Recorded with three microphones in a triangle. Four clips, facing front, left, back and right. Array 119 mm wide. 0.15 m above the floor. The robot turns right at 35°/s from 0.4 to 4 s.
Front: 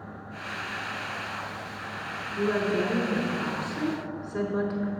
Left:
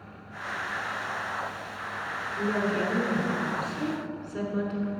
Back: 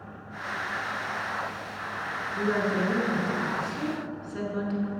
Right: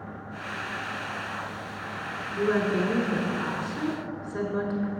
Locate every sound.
2.4 s a woman speaking: 115° right, 1.2 m; by 4.9 s 60° right, 1.2 m